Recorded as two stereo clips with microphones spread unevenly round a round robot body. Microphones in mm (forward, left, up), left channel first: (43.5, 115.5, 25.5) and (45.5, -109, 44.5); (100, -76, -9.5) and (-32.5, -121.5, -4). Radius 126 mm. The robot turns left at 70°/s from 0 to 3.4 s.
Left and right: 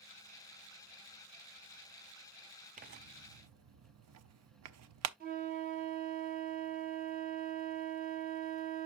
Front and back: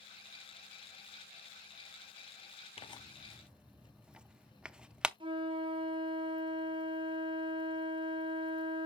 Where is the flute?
125° right, 1.3 m.